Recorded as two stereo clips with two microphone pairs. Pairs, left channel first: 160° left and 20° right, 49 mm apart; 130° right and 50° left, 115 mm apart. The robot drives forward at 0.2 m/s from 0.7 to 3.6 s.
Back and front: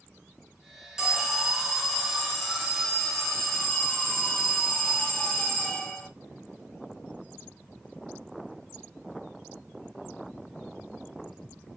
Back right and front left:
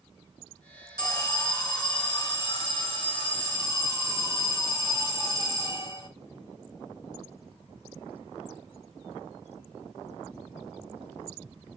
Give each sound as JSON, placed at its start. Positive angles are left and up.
{"t": 1.0, "sound": "an alarm", "azimuth_deg": -100, "distance_m": 1.8}